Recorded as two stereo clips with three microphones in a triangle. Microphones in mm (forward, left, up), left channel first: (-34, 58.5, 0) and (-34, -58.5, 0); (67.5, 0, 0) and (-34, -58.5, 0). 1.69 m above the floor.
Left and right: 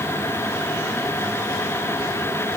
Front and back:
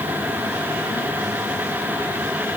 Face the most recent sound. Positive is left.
No sound to turn to.